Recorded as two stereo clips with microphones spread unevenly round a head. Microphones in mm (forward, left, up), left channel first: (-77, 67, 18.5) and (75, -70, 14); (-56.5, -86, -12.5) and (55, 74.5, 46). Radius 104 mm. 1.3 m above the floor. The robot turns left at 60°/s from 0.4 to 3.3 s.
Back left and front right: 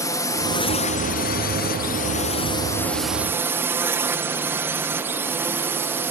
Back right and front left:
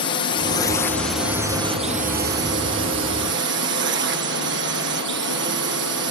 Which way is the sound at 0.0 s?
155° right.